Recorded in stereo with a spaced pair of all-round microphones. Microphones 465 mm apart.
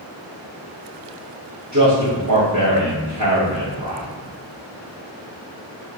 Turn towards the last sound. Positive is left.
turn(degrees=-35)  # may be behind; listen again after turning